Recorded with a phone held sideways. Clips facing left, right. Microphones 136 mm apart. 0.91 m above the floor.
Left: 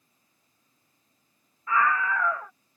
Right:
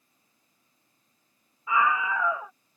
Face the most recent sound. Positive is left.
turn(degrees=-10)  # may be behind; listen again after turning